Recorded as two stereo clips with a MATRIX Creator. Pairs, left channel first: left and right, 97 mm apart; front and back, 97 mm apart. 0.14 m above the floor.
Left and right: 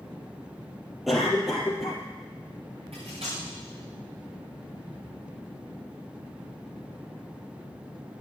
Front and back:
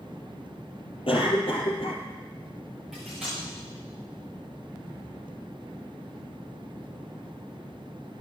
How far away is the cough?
About 3.5 m.